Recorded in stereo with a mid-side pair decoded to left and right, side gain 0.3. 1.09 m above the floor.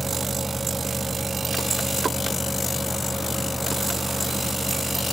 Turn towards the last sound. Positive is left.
turn(degrees=-10)